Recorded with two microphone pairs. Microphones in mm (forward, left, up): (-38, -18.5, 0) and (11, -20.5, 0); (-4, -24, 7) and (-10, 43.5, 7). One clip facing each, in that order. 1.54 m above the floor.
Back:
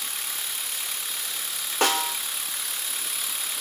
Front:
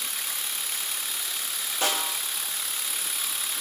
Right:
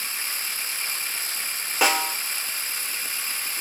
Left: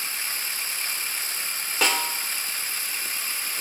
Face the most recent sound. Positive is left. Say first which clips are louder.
# back 4 dB, right 3 dB
turn(degrees=-165)